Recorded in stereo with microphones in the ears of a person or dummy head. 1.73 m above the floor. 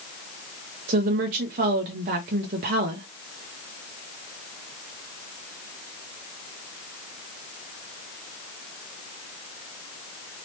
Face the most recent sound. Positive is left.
turn(degrees=-35)  # may be behind; listen again after turning